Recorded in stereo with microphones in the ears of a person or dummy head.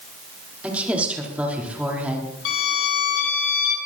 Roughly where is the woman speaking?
Centre.